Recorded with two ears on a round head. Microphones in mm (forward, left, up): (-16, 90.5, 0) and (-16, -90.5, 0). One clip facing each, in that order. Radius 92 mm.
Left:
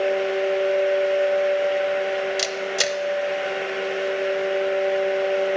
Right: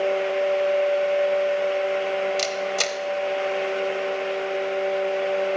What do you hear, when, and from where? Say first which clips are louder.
2.4 s a camera shutter: even; 10° left (ahead or behind), 0.9 m